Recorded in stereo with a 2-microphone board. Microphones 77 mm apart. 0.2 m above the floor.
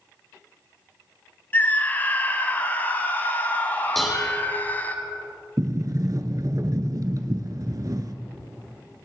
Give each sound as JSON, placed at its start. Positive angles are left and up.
{"t": 1.5, "sound": "a scream", "side_deg": 25, "distance_m": 1.1}
{"t": 4.0, "sound": "dishes clattering", "side_deg": 0, "distance_m": 5.0}
{"t": 5.6, "sound": "a sliding door", "side_deg": -50, "distance_m": 0.8}